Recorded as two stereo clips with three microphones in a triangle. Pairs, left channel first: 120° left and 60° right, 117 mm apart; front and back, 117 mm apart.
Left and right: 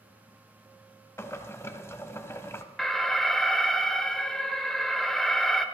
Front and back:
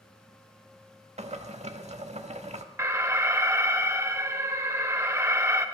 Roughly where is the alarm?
Behind right.